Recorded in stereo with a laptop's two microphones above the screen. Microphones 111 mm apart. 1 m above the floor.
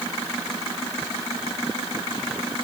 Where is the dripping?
No dripping in this recording.